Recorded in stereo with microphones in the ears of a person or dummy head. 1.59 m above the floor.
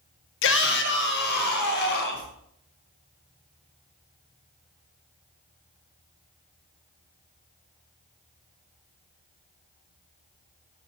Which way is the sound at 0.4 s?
65° left (ahead or behind).